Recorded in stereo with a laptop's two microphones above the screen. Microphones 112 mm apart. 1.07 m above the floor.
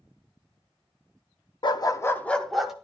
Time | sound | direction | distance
1.6 | a dog barking | 50° left (ahead or behind) | 0.7 m